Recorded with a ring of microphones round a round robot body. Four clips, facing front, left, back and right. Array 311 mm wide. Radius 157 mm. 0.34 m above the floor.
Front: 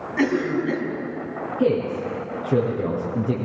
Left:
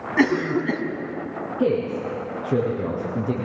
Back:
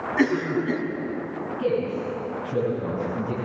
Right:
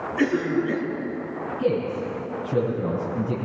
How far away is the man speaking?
About 8 m.